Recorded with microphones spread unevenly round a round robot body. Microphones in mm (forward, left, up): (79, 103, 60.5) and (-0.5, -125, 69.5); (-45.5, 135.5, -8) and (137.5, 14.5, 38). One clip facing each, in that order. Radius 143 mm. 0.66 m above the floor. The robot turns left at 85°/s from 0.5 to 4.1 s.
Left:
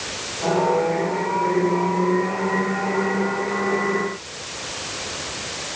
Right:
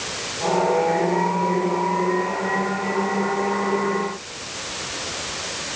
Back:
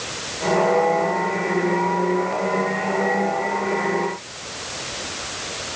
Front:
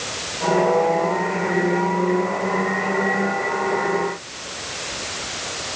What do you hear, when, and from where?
Only background noise.